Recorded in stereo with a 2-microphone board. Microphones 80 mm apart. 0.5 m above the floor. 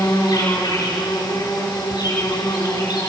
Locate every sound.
0.0 s an insect: 60° left (ahead or behind), 6 m